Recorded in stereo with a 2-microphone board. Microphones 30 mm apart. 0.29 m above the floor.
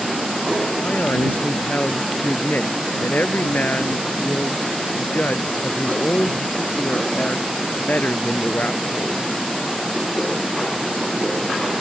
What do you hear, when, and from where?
0.8 s a man speaking: 75° left (ahead or behind)